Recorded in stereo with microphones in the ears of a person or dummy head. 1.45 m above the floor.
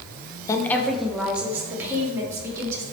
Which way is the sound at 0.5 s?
20° left (ahead or behind).